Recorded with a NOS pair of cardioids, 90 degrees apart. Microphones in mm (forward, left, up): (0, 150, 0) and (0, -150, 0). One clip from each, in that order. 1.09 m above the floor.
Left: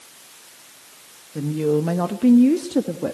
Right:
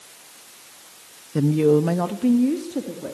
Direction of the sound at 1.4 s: 45° right.